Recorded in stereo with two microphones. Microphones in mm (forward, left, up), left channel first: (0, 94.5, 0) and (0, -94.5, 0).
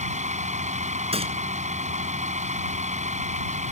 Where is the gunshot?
30° right (ahead or behind).